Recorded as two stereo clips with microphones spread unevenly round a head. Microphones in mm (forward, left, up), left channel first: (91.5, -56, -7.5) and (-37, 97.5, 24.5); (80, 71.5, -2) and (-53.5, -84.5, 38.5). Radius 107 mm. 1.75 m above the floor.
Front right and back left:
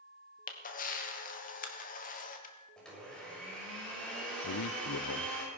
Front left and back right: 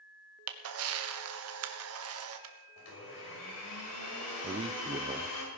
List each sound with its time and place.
0.5 s a camera shutter: 110° right, 1.4 m
2.8 s a blender: 40° left, 6.5 m
4.4 s a man speaking: 70° right, 0.7 m